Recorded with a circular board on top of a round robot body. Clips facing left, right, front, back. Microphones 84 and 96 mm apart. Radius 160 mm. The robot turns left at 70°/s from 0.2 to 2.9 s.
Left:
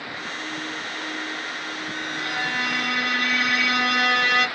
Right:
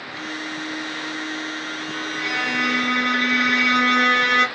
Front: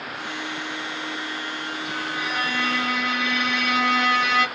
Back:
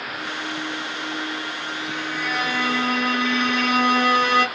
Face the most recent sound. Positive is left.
turn(degrees=-130)